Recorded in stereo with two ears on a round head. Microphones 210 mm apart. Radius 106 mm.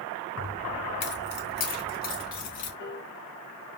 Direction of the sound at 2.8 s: 45° left (ahead or behind).